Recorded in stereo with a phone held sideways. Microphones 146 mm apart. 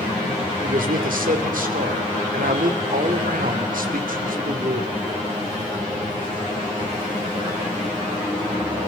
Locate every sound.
0.6 s a man speaking: 75° right (ahead or behind), 2.5 m